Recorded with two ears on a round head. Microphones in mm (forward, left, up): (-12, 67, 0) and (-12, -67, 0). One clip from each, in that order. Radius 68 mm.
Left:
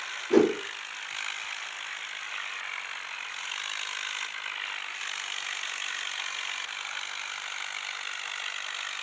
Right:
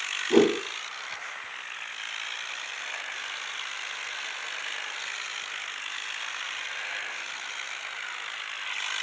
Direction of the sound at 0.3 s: 10° left (ahead or behind).